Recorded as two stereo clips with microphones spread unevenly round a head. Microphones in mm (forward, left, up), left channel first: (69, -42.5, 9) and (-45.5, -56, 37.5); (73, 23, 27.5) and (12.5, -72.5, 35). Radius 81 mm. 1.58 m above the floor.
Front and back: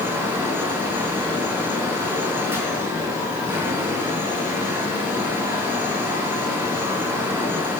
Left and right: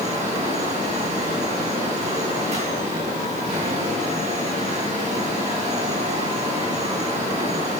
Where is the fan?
105° right, 5 m.